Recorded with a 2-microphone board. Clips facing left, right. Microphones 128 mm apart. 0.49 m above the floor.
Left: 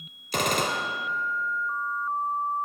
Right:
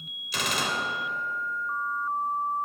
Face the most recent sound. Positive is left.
turn(degrees=50)  # may be behind; listen again after turning